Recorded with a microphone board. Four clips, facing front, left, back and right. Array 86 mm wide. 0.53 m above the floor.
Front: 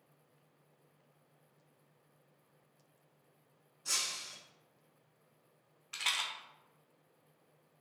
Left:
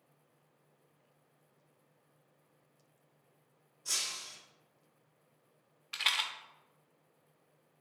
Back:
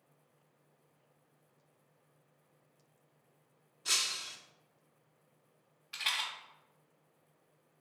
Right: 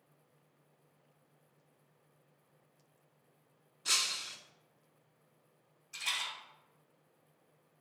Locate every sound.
3.9 s breaking glass: 120° right, 0.6 m
5.9 s a rattle: 80° left, 0.7 m